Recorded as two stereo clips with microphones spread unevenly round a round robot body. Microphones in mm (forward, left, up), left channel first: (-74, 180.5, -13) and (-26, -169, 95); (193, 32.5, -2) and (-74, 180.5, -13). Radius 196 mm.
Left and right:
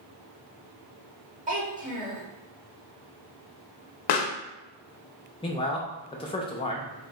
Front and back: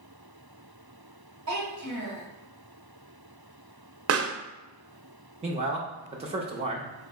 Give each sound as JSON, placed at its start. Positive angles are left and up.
{"t": 1.5, "sound": "a child speaking", "azimuth_deg": -150, "distance_m": 2.0}
{"t": 4.1, "sound": "a pop", "azimuth_deg": 105, "distance_m": 0.6}
{"t": 5.4, "sound": "a man speaking", "azimuth_deg": 105, "distance_m": 0.5}